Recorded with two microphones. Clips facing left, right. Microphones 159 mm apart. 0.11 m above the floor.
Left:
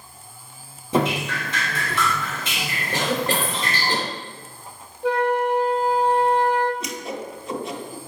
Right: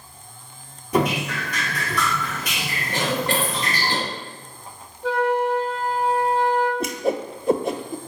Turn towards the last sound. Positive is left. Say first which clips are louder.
# right 7 dB
turn(degrees=-60)  # may be behind; listen again after turning